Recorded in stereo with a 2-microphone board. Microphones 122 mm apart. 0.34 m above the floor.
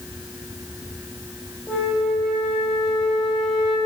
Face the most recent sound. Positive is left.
turn(degrees=5)  # may be behind; listen again after turning